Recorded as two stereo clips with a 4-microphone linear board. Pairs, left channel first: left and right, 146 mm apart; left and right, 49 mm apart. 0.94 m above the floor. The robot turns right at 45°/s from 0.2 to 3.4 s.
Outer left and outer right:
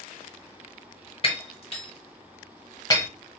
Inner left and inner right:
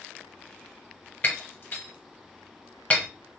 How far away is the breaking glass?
About 0.9 m.